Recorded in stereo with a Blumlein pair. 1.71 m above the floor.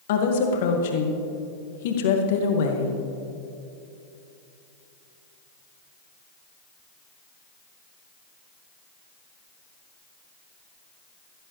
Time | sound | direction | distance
0.1 | a woman speaking | 55° left | 2 m